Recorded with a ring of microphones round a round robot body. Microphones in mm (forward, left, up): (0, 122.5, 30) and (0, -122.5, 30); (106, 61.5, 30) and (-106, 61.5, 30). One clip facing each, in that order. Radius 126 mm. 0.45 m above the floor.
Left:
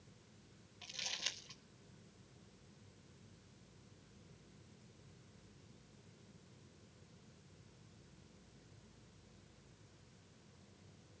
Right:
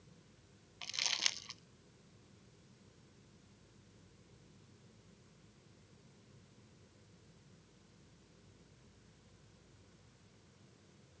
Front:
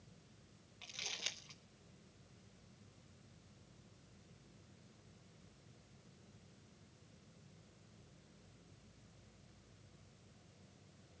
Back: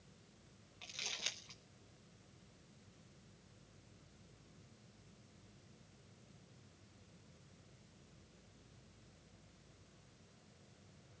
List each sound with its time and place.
0.8 s crumpling: 90° right, 0.8 m